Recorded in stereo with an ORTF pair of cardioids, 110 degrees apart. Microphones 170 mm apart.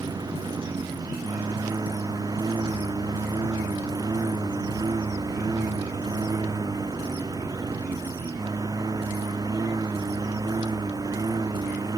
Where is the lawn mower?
20° right.